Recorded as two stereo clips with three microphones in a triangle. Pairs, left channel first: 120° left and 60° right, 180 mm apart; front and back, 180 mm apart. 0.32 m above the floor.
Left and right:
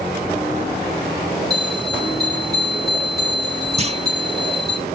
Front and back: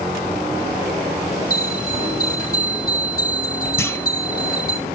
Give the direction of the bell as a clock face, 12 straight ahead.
11 o'clock.